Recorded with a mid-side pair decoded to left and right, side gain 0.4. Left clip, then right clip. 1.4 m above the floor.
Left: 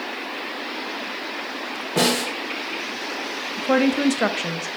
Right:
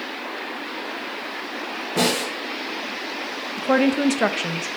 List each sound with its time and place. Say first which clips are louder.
2.0 s a snare drum: left 1 dB; 30° left, 2.5 m
3.6 s a woman speaking: even; 10° right, 0.5 m